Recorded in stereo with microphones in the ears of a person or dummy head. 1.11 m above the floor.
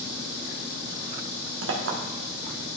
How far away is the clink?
About 1.1 m.